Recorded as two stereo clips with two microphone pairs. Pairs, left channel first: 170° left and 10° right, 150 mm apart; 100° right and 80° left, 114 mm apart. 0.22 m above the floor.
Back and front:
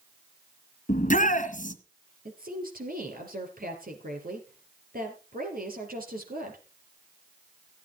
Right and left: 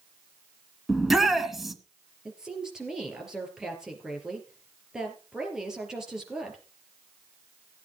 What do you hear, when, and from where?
0.9 s a shout: 170° left, 1.9 m
2.2 s a woman speaking: 5° right, 4 m